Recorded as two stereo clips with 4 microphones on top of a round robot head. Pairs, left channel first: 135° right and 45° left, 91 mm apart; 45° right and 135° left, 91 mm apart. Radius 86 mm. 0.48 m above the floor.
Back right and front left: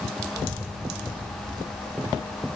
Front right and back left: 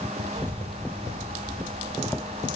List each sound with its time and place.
0.3 s a child speaking: 115° right, 2.5 m; by 2.3 s 80° right, 2 m